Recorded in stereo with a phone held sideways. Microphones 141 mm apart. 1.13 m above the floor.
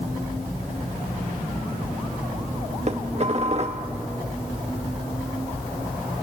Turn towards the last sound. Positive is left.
turn(degrees=-45)  # may be behind; listen again after turning